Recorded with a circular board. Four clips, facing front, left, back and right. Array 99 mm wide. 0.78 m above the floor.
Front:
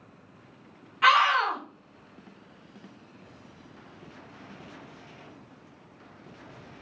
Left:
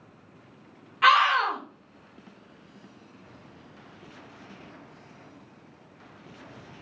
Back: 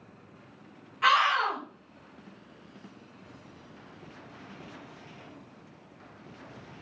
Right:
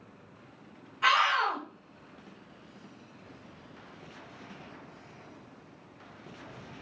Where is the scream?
70° left, 0.8 m.